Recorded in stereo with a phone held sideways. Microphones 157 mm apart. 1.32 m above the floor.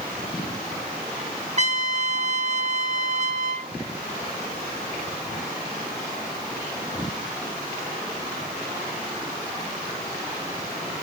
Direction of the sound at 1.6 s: 45° right (ahead or behind).